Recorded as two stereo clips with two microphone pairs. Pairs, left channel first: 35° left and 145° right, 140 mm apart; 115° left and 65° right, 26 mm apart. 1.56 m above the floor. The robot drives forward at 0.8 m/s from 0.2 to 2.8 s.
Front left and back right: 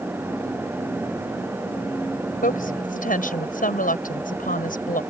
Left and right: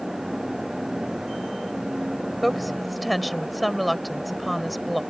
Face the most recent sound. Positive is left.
turn(degrees=25)